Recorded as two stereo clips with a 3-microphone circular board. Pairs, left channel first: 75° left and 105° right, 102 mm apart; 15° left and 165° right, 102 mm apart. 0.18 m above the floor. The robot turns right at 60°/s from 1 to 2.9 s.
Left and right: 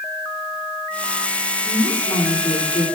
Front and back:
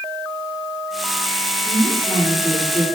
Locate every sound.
1.6 s a woman speaking: 25° left, 9.5 m; by 2.8 s 95° left, 9.5 m